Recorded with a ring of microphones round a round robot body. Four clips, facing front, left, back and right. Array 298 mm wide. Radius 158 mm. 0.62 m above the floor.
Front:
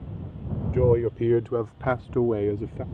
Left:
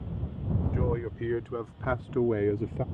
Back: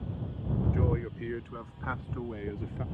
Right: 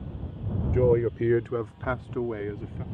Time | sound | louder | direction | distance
0.7 | a man speaking | right 12 dB, front 11 dB | 40° right | ?